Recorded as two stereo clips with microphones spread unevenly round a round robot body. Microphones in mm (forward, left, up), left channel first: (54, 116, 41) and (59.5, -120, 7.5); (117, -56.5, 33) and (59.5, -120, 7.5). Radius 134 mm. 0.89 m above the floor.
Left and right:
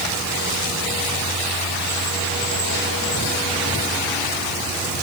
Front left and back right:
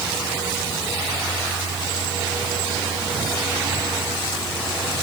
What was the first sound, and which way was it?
Only background noise.